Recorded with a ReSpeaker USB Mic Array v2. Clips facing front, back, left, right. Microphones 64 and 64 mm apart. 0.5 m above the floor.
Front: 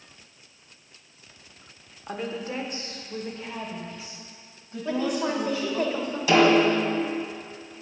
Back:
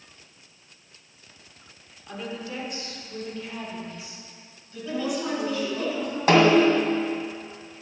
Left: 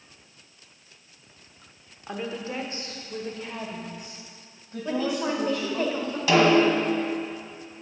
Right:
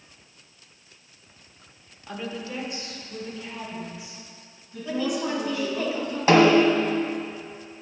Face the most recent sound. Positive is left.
turn(degrees=-140)